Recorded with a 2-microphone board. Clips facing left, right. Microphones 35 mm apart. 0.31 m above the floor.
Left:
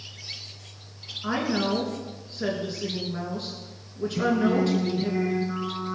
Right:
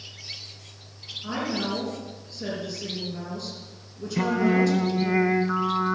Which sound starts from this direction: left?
A woman speaking, at 1.2 s.